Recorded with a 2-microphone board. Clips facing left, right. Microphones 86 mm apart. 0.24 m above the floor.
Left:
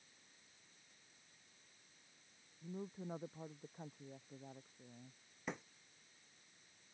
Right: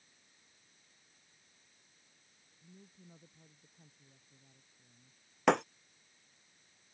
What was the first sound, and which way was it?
A woman speaking, 60° left (ahead or behind).